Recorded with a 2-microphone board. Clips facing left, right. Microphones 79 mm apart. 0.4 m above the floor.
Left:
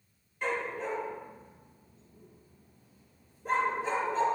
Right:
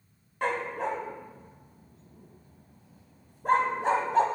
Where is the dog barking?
65° right (ahead or behind), 0.7 m.